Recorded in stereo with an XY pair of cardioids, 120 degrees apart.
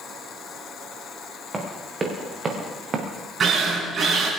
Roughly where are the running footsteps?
Ahead right.